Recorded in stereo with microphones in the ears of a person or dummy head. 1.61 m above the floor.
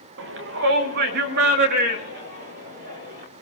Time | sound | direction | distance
0.2 | a shout | 60° right (ahead or behind) | 1.1 m